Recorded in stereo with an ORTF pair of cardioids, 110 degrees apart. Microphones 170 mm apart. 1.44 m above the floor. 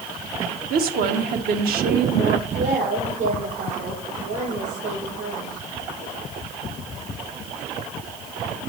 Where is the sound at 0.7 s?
65° right, 1.1 m.